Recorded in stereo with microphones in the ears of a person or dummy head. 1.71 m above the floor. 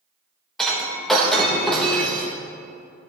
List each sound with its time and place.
0.6 s breaking glass: 5° left (ahead or behind), 1.1 m